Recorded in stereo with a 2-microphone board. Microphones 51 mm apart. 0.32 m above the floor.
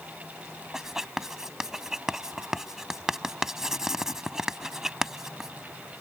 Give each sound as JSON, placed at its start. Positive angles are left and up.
{"t": 0.7, "sound": "writing", "side_deg": -10}